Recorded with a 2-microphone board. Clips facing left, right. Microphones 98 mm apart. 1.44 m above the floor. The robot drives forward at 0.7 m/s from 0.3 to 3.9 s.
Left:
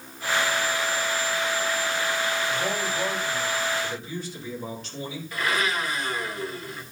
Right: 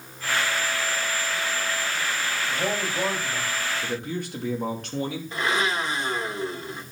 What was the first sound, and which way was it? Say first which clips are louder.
A man speaking: even; 35° right (ahead or behind).